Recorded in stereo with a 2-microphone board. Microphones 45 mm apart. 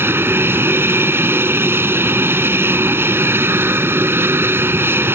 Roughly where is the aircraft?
Right.